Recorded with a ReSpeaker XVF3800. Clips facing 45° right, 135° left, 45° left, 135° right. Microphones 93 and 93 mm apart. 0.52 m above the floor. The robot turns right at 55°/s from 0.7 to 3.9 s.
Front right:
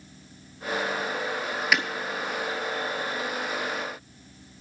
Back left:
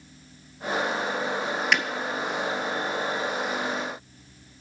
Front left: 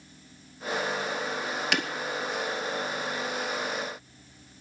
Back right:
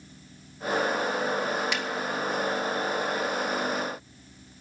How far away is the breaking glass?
About 0.9 m.